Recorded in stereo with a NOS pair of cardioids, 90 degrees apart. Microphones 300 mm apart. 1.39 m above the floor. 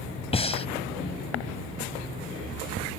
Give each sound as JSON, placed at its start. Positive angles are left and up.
{"t": 0.3, "sound": "breathing", "azimuth_deg": 20}